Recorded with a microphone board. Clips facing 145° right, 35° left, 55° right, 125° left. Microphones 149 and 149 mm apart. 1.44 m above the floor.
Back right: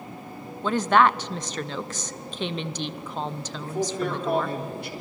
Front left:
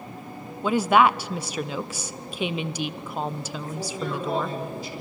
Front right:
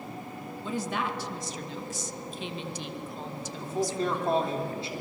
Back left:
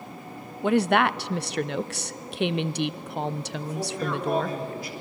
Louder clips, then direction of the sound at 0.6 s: Front left 1 dB, back left 11 dB; 115° left.